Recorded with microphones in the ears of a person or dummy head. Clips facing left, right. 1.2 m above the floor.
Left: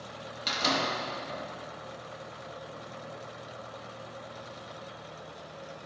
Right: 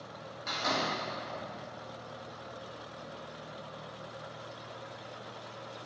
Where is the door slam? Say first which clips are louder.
Left 3 dB; 45° left (ahead or behind), 1.3 m.